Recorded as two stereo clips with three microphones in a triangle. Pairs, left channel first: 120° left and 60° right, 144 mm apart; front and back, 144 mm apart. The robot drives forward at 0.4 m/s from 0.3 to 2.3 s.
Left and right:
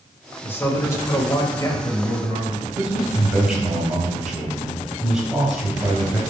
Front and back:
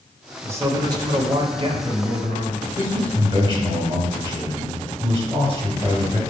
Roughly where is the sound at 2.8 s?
Behind right.